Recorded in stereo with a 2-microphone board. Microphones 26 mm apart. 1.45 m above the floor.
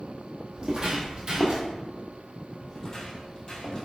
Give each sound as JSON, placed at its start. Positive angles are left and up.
{"t": 0.5, "sound": "footsteps", "side_deg": -40, "distance_m": 1.9}
{"t": 2.7, "sound": "footsteps", "side_deg": 25, "distance_m": 1.7}